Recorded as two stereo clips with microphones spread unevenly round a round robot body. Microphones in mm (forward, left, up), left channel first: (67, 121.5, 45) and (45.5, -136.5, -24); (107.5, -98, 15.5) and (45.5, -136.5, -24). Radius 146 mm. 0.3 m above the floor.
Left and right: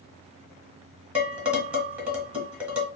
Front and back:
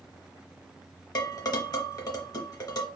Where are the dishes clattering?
15° right, 1.8 m.